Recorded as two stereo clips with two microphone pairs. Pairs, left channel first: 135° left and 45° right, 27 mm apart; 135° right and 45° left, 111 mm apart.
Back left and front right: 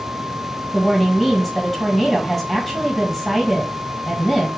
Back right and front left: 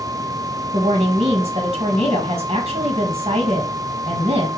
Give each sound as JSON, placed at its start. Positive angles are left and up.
{"t": 0.7, "sound": "a woman speaking", "azimuth_deg": 40, "distance_m": 1.3}